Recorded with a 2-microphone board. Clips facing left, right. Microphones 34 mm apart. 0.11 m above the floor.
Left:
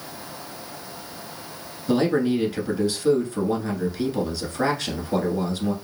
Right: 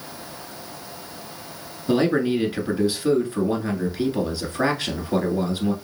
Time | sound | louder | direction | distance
1.9 | a man speaking | right 1 dB | 20° right (ahead or behind) | 1.1 m